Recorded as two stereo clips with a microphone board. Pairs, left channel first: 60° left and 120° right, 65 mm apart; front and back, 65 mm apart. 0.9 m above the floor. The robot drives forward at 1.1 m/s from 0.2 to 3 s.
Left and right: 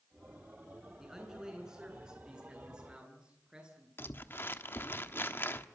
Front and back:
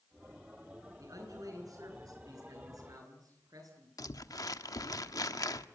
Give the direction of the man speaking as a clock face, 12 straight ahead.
7 o'clock.